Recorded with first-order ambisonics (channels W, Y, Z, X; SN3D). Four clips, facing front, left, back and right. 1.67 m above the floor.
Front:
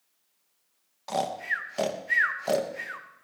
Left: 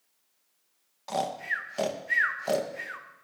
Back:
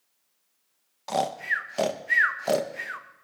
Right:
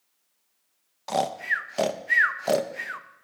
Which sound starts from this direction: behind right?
Snoring, at 1.1 s.